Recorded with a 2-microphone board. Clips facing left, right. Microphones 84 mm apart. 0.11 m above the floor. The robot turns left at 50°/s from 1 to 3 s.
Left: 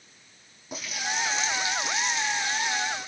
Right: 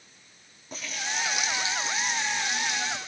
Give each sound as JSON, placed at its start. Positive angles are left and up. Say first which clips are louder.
{"t": 0.7, "sound": "a running tap", "louder": "left 2 dB", "azimuth_deg": 10, "distance_m": 4.5}